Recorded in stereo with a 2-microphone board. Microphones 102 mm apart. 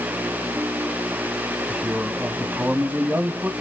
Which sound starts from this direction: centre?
A man speaking, at 1.7 s.